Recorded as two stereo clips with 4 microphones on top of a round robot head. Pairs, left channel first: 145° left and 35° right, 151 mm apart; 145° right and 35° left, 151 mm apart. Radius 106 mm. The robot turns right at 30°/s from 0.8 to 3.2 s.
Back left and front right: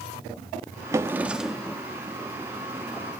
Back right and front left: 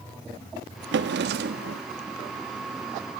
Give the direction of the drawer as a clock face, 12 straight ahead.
11 o'clock.